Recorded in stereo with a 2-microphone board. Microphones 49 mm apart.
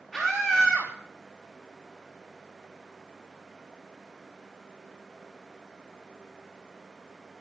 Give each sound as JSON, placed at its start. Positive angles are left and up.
{"t": 0.1, "sound": "a scream", "side_deg": 0, "distance_m": 3.5}